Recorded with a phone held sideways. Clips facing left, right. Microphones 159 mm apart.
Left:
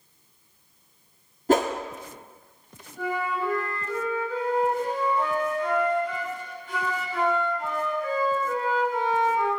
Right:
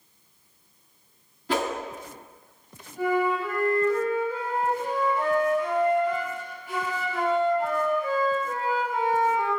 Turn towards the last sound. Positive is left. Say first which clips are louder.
# right 4 dB
turn(degrees=-10)  # may be behind; listen again after turning